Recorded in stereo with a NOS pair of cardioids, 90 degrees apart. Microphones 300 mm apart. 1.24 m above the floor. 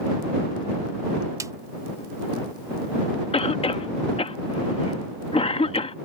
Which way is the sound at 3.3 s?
20° left.